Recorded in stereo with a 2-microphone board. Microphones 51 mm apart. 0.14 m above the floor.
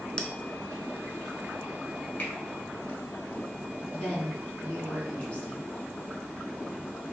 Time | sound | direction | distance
0.2 | a bell | 20° left (ahead or behind) | 0.5 m
2.2 | a finger snap | 30° left (ahead or behind) | 1.7 m
3.9 | a woman speaking | 25° left (ahead or behind) | 1.2 m